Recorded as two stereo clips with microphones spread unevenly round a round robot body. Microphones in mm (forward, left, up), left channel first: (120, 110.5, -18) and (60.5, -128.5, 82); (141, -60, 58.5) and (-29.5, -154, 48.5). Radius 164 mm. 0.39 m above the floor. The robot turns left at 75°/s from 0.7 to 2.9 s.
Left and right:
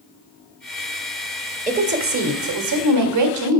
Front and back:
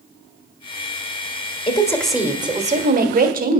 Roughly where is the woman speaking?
Ahead right.